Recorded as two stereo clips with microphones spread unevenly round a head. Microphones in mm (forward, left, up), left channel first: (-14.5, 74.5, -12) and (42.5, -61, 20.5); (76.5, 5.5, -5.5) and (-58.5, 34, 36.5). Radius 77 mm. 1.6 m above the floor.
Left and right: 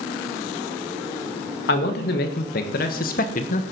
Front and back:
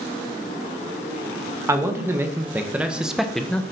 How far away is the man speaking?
About 2 m.